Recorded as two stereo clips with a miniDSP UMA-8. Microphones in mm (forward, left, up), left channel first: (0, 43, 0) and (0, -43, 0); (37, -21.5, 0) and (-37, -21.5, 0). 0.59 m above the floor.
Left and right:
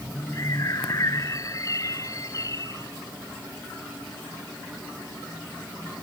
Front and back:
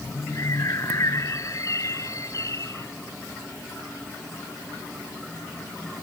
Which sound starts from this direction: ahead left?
A bird, at 0.3 s.